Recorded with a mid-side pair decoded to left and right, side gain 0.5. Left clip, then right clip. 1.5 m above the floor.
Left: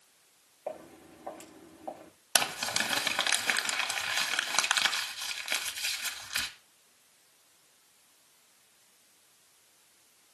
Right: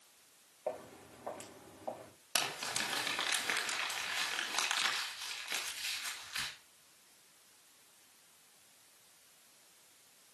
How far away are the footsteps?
About 7 m.